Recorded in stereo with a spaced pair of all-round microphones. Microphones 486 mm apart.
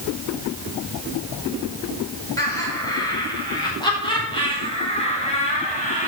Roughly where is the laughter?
Centre.